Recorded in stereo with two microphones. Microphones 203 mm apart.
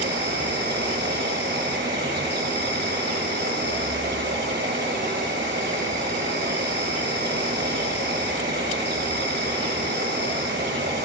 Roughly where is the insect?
Right.